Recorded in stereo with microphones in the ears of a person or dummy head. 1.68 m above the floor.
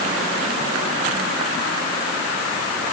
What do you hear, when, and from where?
Only background noise.